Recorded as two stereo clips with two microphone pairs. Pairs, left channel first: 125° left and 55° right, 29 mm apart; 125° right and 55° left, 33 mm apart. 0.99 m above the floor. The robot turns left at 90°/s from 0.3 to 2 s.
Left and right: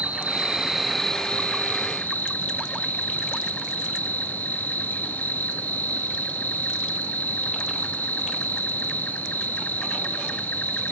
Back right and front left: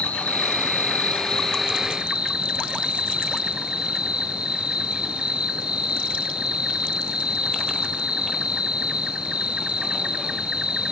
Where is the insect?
90° right, 1.0 m; by 10.9 s 115° left, 1.0 m.